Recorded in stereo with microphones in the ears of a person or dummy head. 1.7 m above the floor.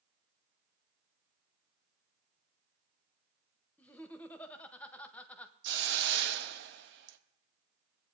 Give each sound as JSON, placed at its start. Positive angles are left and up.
{"t": 3.8, "sound": "laughter", "side_deg": 10, "distance_m": 1.0}
{"t": 5.6, "sound": "a hiss", "side_deg": -60, "distance_m": 0.9}